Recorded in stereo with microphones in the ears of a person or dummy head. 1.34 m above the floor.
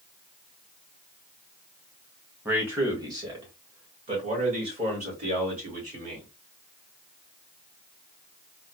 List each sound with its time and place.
2.5 s a man speaking: 5° right (ahead or behind), 1.1 m; by 6.3 s 40° right (ahead or behind), 3 m